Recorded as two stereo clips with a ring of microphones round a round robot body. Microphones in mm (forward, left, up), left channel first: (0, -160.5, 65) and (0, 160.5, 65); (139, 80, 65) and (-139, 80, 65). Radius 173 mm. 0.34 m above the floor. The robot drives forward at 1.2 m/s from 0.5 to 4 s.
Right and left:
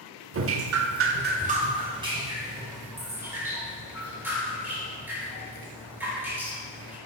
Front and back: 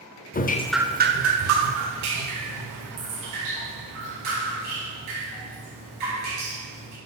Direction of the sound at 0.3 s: 55° left.